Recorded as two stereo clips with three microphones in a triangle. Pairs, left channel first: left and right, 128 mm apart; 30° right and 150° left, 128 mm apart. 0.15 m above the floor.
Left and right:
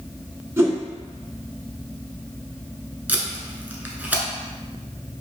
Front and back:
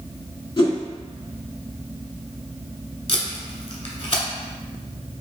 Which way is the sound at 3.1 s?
15° right.